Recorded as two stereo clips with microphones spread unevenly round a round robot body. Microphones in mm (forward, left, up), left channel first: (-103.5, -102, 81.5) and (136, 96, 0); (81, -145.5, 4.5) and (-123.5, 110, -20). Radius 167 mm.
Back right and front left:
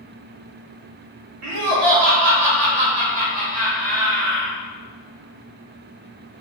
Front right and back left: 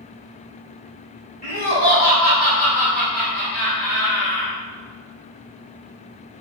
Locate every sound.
1.4 s laughter: 15° left, 1.9 m; by 4.5 s 35° right, 2 m